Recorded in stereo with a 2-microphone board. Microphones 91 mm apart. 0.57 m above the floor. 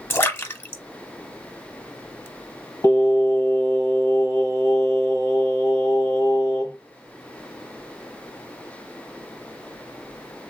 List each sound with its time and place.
0.1 s a splash: 25° left (ahead or behind), 0.7 m
2.8 s singing: 35° left (ahead or behind), 1.8 m